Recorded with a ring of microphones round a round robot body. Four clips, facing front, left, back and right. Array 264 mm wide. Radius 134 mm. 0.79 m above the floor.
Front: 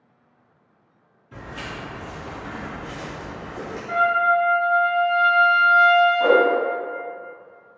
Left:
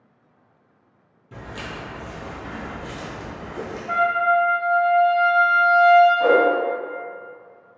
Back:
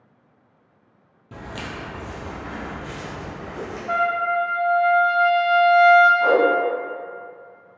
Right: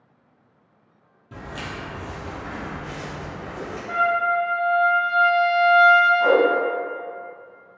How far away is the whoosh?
About 1.1 m.